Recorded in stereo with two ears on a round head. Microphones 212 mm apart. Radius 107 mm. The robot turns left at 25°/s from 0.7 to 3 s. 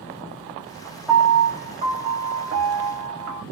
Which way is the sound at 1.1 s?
10° right.